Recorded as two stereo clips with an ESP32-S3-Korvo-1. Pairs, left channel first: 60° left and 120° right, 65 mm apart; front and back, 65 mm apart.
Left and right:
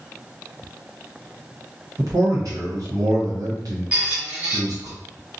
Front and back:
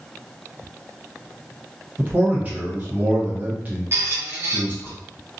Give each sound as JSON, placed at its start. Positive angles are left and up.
{"t": 2.0, "sound": "a man speaking", "azimuth_deg": -120, "distance_m": 1.2}
{"t": 3.9, "sound": "a squeak", "azimuth_deg": -175, "distance_m": 0.8}